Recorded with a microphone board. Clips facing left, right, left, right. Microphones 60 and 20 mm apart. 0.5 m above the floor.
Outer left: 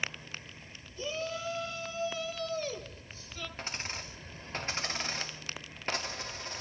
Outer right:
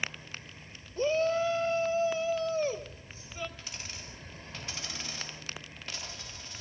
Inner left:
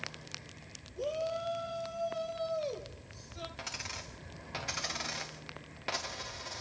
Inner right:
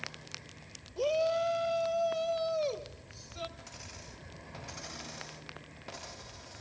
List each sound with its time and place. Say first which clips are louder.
1.0 s a shout: outer right 10 dB, inner right 6 dB; 50° right (ahead or behind), 2 m; by 3.5 s 20° right (ahead or behind), 3 m
3.6 s a dropped coin: outer left 5 dB, inner left 7 dB; 40° left (ahead or behind), 4.5 m